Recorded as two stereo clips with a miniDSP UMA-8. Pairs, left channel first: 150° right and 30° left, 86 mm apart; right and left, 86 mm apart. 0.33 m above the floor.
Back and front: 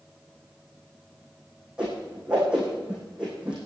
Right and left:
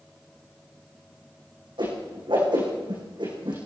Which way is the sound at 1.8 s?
110° left.